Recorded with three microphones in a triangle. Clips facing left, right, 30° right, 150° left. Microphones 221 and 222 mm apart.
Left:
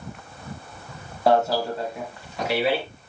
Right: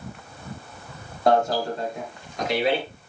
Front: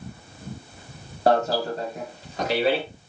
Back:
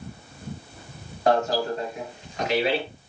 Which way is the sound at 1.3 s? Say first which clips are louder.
Even, front 1 dB; 5° left.